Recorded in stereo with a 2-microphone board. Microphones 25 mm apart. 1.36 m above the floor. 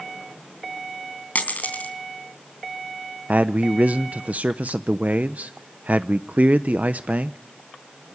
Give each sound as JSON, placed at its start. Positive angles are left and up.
{"t": 1.4, "sound": "a dropped coin", "side_deg": 75, "distance_m": 3.5}
{"t": 3.3, "sound": "a man speaking", "side_deg": -65, "distance_m": 0.6}